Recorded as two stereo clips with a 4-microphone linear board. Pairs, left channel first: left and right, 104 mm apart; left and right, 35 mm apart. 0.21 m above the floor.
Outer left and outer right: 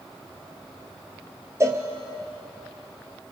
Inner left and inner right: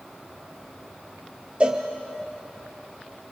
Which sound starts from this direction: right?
A cowbell, at 1.6 s.